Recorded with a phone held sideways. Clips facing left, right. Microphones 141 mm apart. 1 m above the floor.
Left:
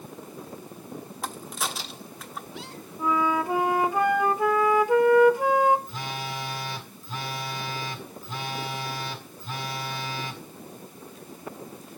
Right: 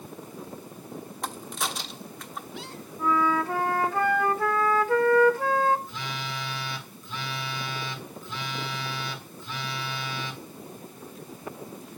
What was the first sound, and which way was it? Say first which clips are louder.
A crack: even; 5° left (ahead or behind).